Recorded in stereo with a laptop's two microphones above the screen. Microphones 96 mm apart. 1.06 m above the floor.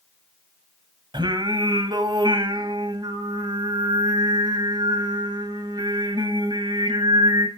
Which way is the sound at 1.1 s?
55° right (ahead or behind).